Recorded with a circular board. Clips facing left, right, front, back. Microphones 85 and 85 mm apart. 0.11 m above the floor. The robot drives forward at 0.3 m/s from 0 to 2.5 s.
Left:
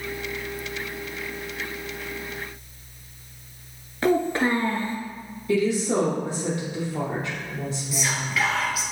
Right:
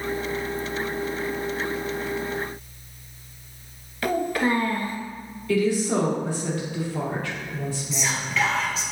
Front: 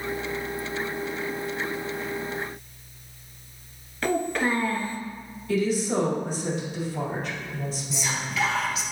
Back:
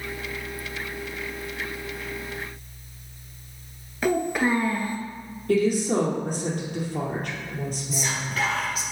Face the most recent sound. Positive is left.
turn(degrees=165)